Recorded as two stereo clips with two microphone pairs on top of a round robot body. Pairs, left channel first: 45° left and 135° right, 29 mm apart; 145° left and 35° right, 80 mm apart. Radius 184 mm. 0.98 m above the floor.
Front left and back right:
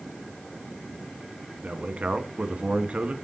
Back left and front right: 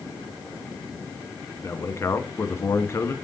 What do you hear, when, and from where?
1.6 s a man speaking: 160° right, 1.3 m